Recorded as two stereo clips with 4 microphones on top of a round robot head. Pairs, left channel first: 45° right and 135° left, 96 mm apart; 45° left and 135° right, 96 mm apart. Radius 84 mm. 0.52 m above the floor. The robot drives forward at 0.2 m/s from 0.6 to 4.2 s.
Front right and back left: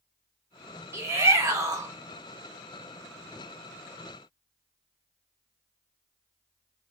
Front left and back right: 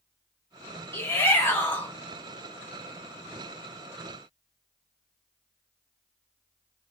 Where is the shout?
90° left, 1.3 m; by 1.9 s 105° left, 1.3 m.